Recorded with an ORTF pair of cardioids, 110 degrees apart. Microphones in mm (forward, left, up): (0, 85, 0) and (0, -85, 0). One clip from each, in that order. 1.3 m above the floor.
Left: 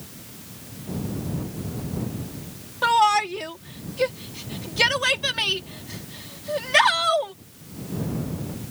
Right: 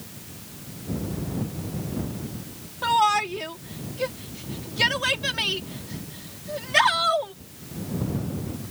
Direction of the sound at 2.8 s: 35° left.